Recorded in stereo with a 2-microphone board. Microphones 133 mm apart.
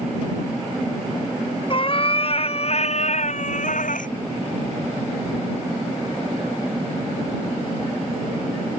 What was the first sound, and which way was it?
A cat meowing, 40° left (ahead or behind).